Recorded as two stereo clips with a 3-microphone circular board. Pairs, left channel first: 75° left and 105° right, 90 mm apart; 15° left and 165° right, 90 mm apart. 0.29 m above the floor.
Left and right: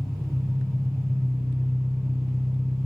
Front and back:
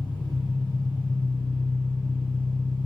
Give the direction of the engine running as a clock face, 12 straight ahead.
12 o'clock.